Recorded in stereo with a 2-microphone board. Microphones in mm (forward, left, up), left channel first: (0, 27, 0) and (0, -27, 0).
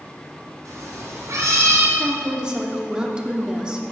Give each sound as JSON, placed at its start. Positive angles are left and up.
{"t": 0.7, "sound": "a cat meowing", "side_deg": -80, "distance_m": 3.0}
{"t": 2.0, "sound": "a woman speaking", "side_deg": -15, "distance_m": 1.2}